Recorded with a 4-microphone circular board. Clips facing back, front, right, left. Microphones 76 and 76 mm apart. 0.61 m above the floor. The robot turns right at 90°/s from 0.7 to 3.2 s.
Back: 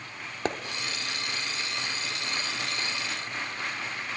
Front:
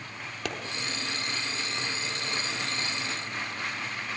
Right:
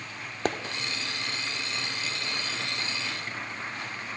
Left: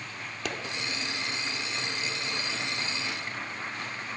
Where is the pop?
125° right, 1.2 m.